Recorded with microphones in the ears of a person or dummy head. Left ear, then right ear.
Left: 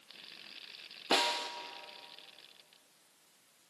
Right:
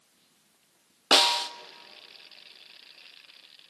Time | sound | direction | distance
1.1 | a snare drum | 35° right (ahead or behind) | 0.5 m